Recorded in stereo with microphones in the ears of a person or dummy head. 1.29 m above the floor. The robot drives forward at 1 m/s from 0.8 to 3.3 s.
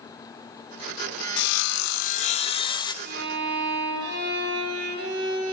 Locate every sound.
1.4 s sawing: 60° left (ahead or behind), 0.7 m; by 2.9 s 25° left (ahead or behind), 1.5 m
3.0 s a violin: 60° right (ahead or behind), 8.5 m